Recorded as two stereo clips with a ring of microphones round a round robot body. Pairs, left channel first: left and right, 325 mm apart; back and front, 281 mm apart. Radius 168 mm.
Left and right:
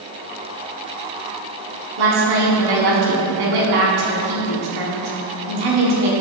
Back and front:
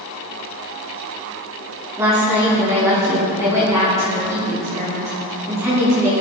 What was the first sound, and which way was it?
A woman speaking, 80° right.